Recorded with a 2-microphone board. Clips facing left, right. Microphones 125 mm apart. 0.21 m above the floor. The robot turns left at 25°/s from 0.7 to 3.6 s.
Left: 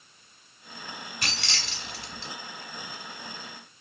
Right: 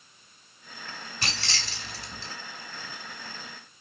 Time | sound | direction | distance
1.2 | keys jangling | 30° right (ahead or behind) | 1.0 m